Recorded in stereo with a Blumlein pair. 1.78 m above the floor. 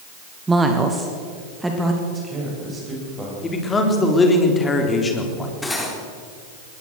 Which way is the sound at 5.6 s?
10° left.